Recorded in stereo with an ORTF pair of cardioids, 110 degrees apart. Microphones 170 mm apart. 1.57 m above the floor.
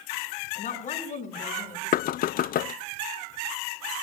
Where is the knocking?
60° left, 0.6 m.